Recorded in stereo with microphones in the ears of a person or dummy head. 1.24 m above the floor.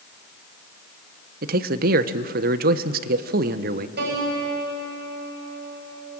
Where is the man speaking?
50° right (ahead or behind), 1.0 m.